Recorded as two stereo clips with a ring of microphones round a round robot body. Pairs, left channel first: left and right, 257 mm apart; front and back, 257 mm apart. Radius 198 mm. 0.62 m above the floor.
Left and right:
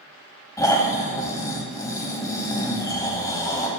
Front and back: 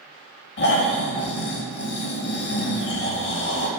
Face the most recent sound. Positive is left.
turn(degrees=20)